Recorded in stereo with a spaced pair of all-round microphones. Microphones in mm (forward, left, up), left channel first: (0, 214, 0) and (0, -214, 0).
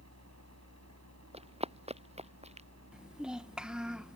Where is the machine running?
35° right (ahead or behind).